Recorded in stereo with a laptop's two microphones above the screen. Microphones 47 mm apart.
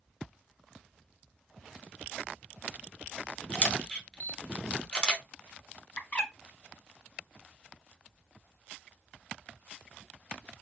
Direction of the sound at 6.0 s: 35° left (ahead or behind).